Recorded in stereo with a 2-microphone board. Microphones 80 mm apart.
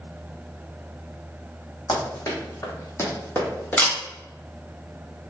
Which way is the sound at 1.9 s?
55° left (ahead or behind).